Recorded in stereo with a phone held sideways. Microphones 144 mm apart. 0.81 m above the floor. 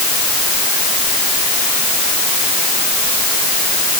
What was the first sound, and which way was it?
Only background noise.